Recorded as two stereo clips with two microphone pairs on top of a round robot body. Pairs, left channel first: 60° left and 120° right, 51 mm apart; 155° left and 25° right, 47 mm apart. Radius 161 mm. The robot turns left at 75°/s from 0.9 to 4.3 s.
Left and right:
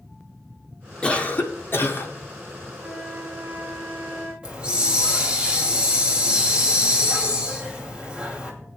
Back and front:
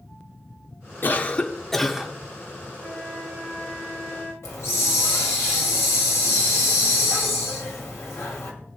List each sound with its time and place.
1.0 s a cough: 125° left, 2.0 m; by 2.1 s 40° left, 2.0 m
2.8 s a flute: 65° right, 8 m; by 4.3 s straight behind, 8 m
4.4 s a hiss: 170° left, 2.5 m